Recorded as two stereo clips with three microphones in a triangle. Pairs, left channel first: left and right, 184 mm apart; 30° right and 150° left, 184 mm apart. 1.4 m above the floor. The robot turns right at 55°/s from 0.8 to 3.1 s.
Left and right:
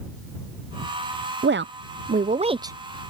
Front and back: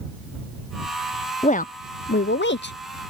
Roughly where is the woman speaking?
Right.